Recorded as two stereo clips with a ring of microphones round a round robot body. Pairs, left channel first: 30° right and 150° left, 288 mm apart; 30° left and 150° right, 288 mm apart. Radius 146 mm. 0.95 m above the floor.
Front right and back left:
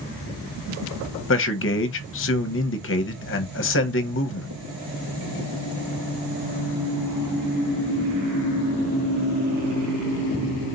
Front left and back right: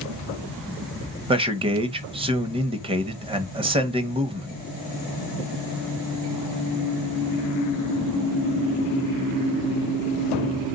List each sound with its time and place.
1.3 s a man speaking: 80° right, 0.9 m